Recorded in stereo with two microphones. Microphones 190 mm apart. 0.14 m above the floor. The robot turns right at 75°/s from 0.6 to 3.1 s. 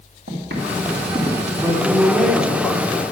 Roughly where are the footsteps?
Right.